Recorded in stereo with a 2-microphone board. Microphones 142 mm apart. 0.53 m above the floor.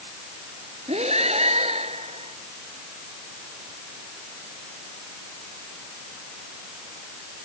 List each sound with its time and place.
0.9 s breathing: 50° right (ahead or behind)